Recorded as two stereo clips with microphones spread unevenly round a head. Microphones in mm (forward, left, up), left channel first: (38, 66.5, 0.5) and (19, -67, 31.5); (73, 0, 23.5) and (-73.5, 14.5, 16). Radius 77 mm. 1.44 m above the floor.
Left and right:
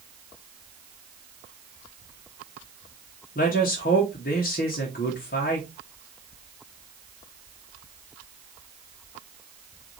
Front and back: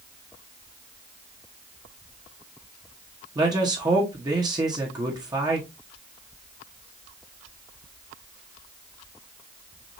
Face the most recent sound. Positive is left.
turn(degrees=110)